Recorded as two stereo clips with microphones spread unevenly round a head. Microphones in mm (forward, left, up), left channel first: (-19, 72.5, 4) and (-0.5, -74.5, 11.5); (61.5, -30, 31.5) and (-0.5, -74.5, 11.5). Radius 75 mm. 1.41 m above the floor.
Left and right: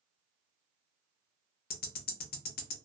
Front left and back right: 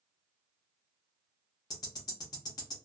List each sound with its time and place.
1.7 s ticking: 95° left, 0.6 m